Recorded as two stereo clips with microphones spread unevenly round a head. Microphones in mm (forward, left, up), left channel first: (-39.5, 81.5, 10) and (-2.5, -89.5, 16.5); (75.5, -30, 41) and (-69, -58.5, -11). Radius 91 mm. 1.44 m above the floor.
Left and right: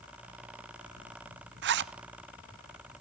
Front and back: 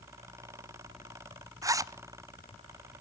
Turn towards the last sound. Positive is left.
turn(degrees=-105)